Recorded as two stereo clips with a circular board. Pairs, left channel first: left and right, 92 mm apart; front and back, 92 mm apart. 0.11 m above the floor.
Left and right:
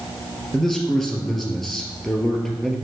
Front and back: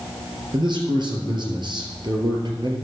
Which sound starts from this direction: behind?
A man speaking, at 0.5 s.